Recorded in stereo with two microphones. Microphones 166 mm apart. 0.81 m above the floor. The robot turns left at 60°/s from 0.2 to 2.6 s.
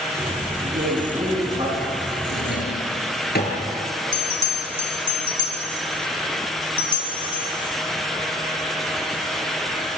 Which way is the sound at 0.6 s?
85° right.